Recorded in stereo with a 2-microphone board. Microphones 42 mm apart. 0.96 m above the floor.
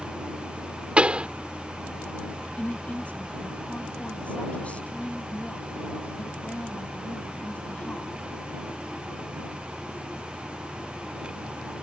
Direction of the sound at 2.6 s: 35° left (ahead or behind).